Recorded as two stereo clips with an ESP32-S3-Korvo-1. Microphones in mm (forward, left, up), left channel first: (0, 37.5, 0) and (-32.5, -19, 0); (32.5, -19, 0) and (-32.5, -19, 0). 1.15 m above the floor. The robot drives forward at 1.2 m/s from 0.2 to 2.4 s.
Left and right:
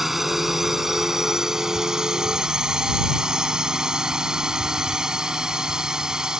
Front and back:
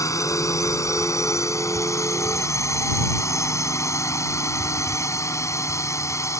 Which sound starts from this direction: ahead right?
A drone, at 0.0 s.